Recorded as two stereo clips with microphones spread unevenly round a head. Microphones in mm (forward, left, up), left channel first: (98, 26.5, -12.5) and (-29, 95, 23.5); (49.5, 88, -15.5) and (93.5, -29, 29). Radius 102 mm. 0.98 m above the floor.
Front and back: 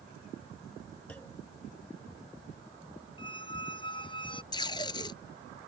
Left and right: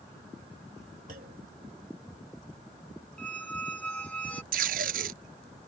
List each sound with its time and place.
1.1 s a clunk: 115° right
3.2 s a squeak: 30° left
4.5 s tape being pulled: 100° right